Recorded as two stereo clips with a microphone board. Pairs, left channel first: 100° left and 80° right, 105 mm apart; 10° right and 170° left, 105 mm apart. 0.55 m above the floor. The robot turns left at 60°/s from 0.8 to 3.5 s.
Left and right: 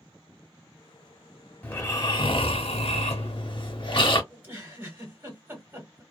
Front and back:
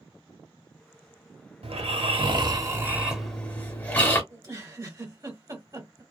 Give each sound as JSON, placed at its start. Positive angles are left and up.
{"t": 1.6, "sound": "snoring", "azimuth_deg": 175, "distance_m": 1.0}
{"t": 4.3, "sound": "a giggle", "azimuth_deg": -140, "distance_m": 1.6}